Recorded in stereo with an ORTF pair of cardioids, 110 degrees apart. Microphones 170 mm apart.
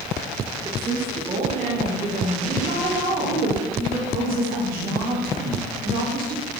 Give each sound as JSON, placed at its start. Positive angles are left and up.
{"t": 0.7, "sound": "a woman speaking", "azimuth_deg": -30, "distance_m": 2.5}
{"t": 2.6, "sound": "a woman speaking", "azimuth_deg": -60, "distance_m": 3.0}